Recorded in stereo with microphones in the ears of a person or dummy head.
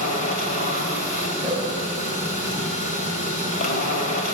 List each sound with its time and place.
0.0 s a machine running: 45° left (ahead or behind), 2.0 m
1.4 s a whoosh: 20° left (ahead or behind), 5 m